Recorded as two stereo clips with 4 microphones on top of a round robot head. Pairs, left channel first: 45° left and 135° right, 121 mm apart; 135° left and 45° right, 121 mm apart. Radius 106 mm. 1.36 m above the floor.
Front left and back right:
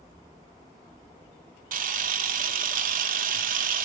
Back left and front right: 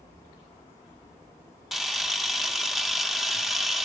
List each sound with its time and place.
1.7 s a camera shutter: 135° right, 1.7 m